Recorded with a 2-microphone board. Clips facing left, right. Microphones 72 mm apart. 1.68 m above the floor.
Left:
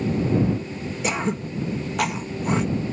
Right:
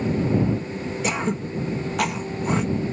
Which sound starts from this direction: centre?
Throat clearing, at 1.0 s.